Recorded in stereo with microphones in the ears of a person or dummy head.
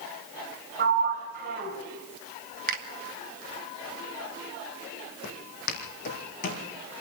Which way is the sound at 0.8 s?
55° right (ahead or behind).